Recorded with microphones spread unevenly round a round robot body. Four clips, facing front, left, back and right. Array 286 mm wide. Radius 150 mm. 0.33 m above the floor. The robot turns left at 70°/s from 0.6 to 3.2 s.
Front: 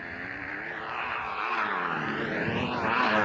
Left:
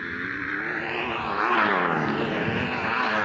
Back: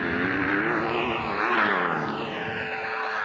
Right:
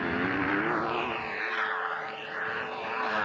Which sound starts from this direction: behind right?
A motorcycle, at 0.0 s.